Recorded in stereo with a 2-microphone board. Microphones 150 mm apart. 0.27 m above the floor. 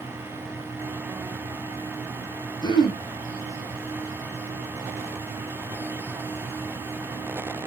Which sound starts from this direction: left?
Throat clearing, at 2.6 s.